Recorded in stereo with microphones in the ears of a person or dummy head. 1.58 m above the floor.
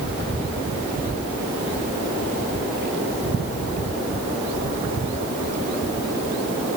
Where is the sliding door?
No sliding door in this recording.